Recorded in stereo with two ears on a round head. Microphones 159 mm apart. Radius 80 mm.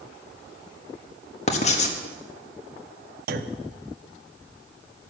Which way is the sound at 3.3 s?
60° right (ahead or behind).